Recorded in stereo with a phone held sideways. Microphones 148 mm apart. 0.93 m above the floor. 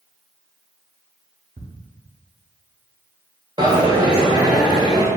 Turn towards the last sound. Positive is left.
turn(degrees=-30)  # may be behind; listen again after turning